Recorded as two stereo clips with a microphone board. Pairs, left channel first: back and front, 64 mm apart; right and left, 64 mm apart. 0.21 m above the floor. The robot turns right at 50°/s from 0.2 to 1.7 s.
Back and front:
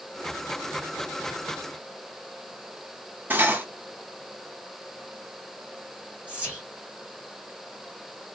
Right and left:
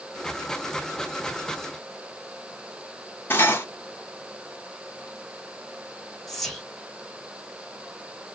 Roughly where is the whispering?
Ahead.